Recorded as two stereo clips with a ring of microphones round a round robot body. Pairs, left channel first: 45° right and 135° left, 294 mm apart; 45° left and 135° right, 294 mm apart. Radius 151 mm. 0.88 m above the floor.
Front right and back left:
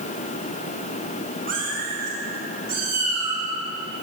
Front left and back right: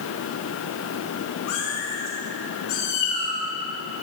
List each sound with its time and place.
1.5 s a cat meowing: 70° left, 7 m; by 3.4 s 55° left, 9 m